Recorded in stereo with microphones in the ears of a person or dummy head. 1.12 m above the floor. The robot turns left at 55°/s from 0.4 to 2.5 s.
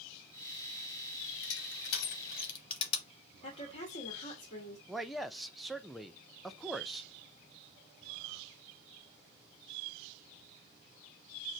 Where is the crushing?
70° left (ahead or behind), 1.8 m; by 3.0 s 25° left (ahead or behind), 1.8 m.